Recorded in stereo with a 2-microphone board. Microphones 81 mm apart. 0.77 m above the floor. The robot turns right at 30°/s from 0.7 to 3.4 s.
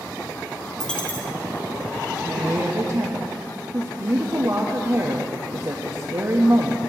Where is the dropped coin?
5° left (ahead or behind), 2.0 m; by 1.3 s 25° left (ahead or behind), 2.0 m.